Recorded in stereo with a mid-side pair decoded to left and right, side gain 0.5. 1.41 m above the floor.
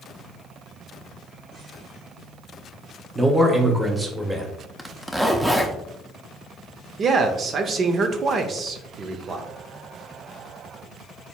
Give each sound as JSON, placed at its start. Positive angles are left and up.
{"t": 3.1, "sound": "a man speaking", "azimuth_deg": -15, "distance_m": 1.1}
{"t": 4.8, "sound": "a zipper", "azimuth_deg": -5, "distance_m": 0.7}
{"t": 7.0, "sound": "a man speaking", "azimuth_deg": -45, "distance_m": 0.8}